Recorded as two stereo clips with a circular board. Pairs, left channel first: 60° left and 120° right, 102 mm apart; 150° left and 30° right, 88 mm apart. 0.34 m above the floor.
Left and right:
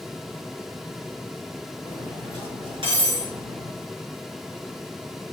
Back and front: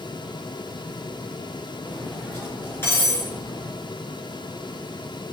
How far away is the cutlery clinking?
About 2.5 m.